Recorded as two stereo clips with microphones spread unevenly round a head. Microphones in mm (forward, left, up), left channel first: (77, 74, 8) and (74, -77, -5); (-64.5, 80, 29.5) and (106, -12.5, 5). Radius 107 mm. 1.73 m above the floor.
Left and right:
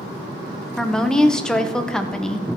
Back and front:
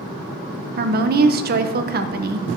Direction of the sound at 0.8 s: 10° left.